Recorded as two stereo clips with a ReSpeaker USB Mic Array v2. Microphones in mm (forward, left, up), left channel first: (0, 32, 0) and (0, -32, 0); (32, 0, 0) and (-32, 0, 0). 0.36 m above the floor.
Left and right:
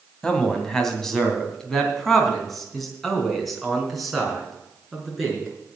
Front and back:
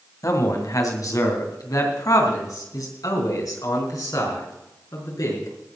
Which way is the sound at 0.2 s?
10° left.